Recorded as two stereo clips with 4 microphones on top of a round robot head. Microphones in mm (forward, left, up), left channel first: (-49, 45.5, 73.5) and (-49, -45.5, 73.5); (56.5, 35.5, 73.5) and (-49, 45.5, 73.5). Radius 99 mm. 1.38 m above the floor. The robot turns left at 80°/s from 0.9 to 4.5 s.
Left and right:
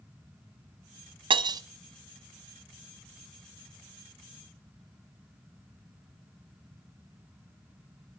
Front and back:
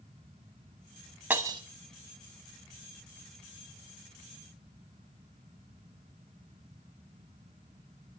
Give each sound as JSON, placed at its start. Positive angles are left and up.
{"t": 1.3, "sound": "breaking glass", "azimuth_deg": -105, "distance_m": 0.8}